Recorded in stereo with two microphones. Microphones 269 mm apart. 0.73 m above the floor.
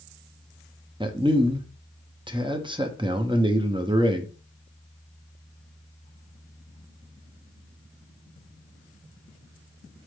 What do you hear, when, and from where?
1.0 s a man speaking: 20° right (ahead or behind), 0.6 m